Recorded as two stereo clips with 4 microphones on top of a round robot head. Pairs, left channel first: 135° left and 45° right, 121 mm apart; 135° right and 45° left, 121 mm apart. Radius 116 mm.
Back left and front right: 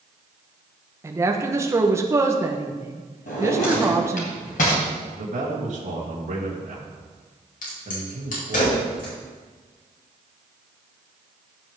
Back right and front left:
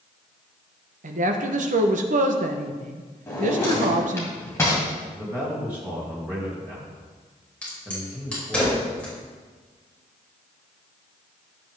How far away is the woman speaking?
About 1.1 m.